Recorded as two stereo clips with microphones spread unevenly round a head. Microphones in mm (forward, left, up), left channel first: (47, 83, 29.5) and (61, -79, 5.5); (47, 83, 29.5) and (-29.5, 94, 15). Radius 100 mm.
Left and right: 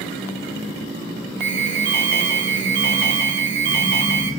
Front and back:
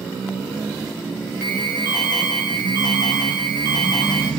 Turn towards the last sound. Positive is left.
turn(degrees=-120)